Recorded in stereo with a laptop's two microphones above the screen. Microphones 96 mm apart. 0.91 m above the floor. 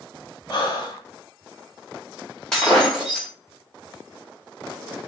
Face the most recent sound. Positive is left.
turn(degrees=5)  # may be behind; listen again after turning